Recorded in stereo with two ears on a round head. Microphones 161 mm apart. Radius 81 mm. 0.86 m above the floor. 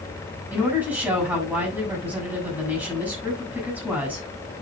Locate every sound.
0.5 s a woman speaking: 10° right (ahead or behind), 7 m